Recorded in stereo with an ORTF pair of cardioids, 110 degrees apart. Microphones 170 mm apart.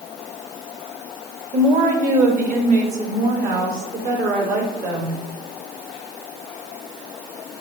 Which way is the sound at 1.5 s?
45° right.